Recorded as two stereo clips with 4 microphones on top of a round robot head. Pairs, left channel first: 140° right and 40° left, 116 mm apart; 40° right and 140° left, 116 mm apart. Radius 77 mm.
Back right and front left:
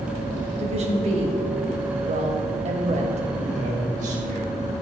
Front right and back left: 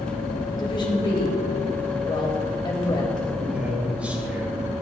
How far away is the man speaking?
About 4.5 m.